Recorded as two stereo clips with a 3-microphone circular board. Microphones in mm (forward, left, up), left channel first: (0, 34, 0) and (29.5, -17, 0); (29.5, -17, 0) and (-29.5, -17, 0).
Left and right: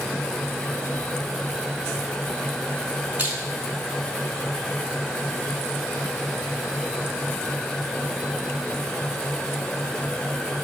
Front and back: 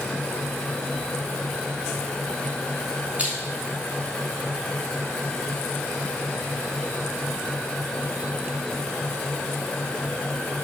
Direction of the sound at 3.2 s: 115° right.